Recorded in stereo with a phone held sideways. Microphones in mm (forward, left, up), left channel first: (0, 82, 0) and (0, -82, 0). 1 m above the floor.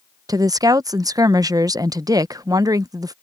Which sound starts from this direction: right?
A woman speaking, at 0.3 s.